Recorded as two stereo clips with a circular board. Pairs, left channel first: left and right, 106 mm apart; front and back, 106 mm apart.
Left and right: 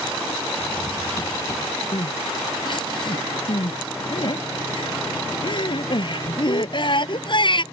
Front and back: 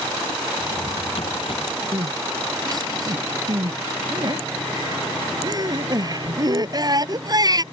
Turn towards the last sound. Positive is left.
turn(degrees=130)